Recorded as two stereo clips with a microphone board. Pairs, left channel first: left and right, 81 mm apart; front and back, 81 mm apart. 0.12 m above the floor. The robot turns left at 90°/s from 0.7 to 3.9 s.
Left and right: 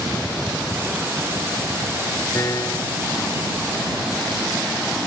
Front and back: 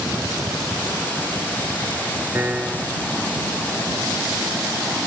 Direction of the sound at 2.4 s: 130° left.